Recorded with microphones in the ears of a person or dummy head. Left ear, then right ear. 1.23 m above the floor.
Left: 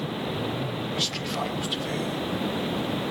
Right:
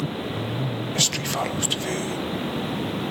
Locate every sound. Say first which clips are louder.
0.9 s whispering: right 5 dB; 55° right (ahead or behind), 1.3 m